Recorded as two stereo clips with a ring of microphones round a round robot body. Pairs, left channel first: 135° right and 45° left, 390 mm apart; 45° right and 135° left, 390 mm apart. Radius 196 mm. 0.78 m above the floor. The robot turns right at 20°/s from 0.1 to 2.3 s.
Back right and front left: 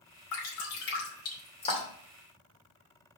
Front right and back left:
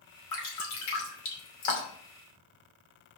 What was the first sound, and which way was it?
Dripping, 85° right.